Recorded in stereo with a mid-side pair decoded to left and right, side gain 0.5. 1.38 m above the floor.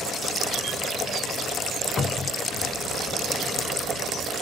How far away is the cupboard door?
About 0.8 m.